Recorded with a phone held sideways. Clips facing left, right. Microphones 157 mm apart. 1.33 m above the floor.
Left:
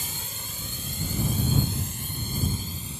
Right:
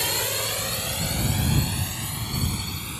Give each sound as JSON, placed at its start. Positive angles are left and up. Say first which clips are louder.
{"t": 0.0, "sound": "a drone", "louder": "right 12 dB", "side_deg": -70}